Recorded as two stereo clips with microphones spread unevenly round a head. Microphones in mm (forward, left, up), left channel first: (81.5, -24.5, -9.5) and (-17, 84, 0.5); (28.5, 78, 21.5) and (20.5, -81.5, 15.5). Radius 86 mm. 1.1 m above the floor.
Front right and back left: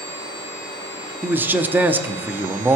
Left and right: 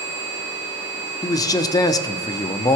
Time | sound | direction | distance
1.2 | a man speaking | 65° left | 0.6 m